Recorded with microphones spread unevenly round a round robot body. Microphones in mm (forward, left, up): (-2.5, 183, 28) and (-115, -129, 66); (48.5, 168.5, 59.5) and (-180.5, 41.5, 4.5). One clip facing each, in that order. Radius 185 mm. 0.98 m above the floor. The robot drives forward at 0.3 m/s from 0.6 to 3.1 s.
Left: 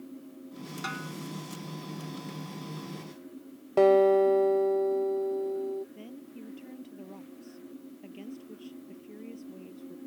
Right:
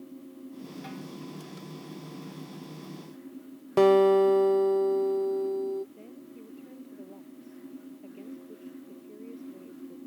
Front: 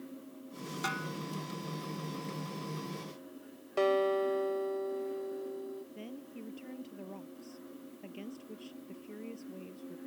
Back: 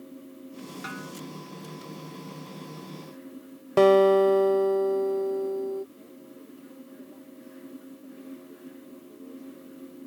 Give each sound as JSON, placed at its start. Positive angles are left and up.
{"t": 0.8, "sound": "a snare drum", "azimuth_deg": 50}
{"t": 3.8, "sound": "a guitar", "azimuth_deg": -165}
{"t": 6.0, "sound": "a woman speaking", "azimuth_deg": 10}